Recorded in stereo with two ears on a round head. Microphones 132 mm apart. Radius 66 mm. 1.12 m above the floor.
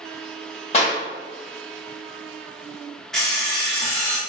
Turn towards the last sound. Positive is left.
turn(degrees=5)  # may be behind; listen again after turning